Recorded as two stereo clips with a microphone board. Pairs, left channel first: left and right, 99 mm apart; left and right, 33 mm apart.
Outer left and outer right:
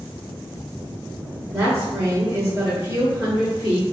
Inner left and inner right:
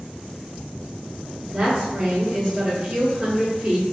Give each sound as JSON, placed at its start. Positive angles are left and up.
{"t": 1.5, "sound": "a woman speaking", "side_deg": -5, "distance_m": 1.5}